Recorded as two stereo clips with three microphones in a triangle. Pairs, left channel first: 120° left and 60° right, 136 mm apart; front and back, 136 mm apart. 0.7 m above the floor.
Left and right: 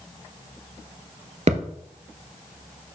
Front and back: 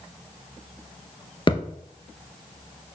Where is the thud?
45° right, 1.1 m.